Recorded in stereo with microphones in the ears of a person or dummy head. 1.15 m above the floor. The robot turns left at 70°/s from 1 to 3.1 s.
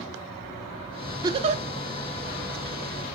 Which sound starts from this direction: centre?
A giggle, at 1.2 s.